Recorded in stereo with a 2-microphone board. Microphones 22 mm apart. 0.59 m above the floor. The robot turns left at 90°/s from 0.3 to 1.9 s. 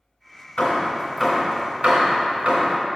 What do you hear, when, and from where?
0.6 s hammering: 50° left (ahead or behind), 2 m; by 2.8 s 70° right (ahead or behind), 2 m